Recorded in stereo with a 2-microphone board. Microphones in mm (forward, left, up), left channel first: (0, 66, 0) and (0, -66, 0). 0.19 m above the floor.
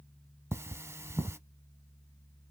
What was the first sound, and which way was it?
Cutlery clinking, 20° right (ahead or behind).